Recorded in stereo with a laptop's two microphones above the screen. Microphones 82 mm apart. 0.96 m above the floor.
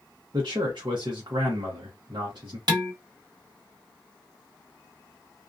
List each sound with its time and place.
0.3 s a man speaking: 60° right (ahead or behind), 0.7 m
2.7 s dishes clattering: 50° right (ahead or behind), 1.0 m